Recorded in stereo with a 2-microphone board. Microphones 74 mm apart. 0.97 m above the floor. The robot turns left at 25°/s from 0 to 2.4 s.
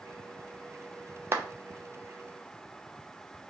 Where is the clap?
35° right (ahead or behind), 0.6 m.